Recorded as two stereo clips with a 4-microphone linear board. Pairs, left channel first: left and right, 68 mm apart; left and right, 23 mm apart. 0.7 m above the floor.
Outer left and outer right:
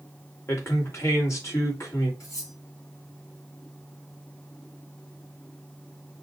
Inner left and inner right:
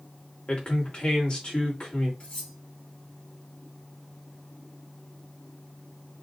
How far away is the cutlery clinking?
About 3 m.